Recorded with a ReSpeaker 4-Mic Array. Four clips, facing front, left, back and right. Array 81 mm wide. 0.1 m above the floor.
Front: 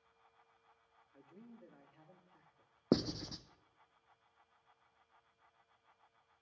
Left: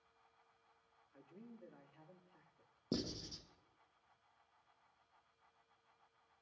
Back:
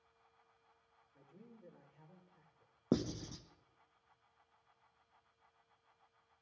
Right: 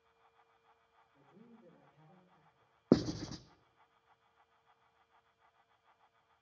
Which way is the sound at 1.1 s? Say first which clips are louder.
Left 3 dB, front 3 dB; 35° left.